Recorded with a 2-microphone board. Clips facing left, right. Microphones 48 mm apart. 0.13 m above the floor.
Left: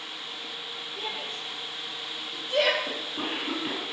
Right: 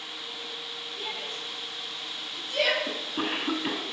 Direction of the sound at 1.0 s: 60° left (ahead or behind).